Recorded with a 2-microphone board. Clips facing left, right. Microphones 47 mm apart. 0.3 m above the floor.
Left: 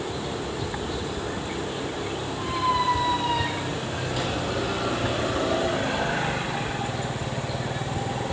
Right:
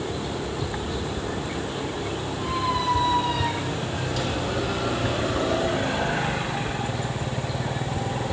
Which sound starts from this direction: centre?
A squeak, at 2.4 s.